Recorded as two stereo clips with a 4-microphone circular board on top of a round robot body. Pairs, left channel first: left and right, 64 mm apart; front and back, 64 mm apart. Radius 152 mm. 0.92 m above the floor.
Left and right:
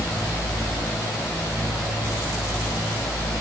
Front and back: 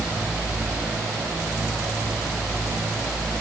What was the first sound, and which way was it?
Only background noise.